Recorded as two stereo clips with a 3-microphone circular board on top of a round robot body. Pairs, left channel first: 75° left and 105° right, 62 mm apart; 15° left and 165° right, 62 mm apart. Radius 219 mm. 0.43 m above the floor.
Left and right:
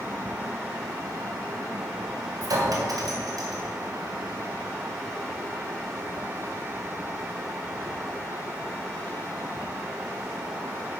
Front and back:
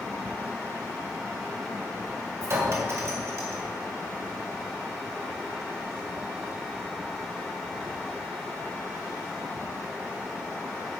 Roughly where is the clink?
Behind right.